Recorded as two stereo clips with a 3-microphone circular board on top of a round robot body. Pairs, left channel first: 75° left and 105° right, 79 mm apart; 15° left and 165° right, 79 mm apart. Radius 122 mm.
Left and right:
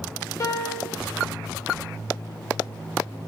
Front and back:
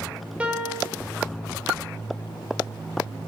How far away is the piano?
About 1.8 m.